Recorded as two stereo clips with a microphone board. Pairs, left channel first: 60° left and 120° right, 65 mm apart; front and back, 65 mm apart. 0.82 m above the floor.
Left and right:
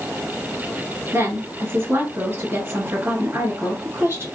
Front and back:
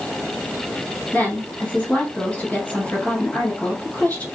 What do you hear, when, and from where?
1.1 s a woman speaking: 70° right, 2 m